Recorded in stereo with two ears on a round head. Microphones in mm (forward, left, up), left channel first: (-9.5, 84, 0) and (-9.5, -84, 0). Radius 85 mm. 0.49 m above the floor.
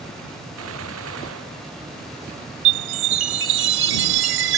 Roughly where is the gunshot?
Right.